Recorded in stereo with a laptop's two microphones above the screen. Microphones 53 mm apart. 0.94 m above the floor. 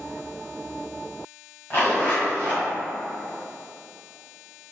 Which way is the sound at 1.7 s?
35° left (ahead or behind).